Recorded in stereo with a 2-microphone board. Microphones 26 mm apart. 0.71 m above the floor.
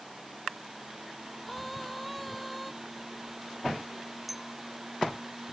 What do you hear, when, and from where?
1.4 s a scream: 5° left (ahead or behind)
4.3 s a clink: 5° right (ahead or behind)